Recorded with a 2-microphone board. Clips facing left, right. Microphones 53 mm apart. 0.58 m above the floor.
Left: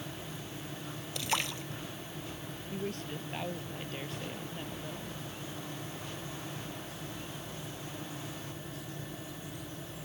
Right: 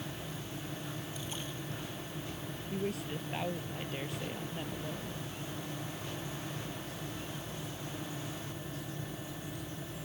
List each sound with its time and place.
1.1 s a splash: 85° left
2.7 s a woman speaking: 5° right (ahead or behind)